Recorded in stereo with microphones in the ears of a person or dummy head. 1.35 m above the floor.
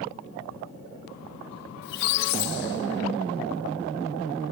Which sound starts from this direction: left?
A squeak, at 1.8 s.